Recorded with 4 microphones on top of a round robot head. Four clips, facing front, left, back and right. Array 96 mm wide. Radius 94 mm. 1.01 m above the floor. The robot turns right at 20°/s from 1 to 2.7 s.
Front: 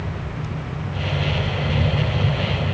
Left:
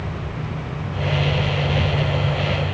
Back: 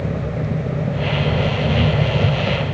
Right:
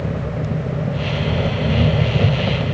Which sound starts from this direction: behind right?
An engine running, at 0.0 s.